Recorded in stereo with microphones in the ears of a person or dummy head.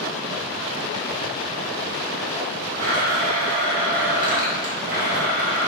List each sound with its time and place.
2.8 s a blender: 45° right (ahead or behind), 1.0 m